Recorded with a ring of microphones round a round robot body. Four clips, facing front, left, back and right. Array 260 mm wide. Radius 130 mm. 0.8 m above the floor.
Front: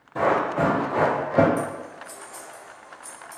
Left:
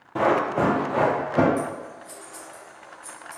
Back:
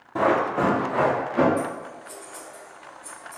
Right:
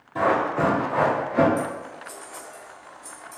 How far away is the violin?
No violin in this recording.